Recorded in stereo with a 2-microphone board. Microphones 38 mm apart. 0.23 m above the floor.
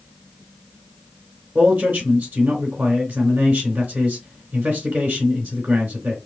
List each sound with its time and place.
1.6 s a man speaking: 55° right (ahead or behind), 3 m